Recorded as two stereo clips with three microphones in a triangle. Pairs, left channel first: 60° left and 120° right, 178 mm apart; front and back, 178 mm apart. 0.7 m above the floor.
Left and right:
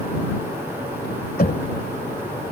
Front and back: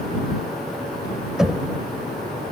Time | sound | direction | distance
1.4 | knocking | 90° left | ?